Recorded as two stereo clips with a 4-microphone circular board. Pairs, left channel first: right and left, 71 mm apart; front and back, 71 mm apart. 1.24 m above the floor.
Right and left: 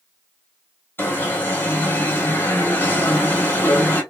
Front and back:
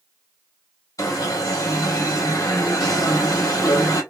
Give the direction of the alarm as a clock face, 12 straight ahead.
1 o'clock.